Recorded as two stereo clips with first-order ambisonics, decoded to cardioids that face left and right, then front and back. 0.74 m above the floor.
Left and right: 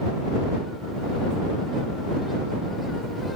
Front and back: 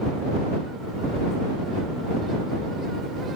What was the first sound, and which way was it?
Only background noise.